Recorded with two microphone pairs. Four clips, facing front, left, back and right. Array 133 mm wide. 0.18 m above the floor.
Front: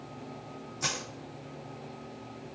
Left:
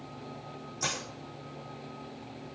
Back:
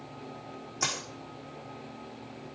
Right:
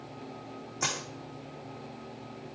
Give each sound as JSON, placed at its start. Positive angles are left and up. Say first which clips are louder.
{"t": 0.8, "sound": "a dropped coin", "louder": "right 1 dB, back 2 dB", "azimuth_deg": -150, "distance_m": 4.5}